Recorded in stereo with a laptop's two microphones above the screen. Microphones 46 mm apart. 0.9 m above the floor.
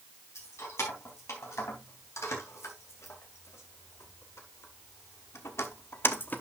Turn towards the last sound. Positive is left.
turn(degrees=35)  # may be behind; listen again after turning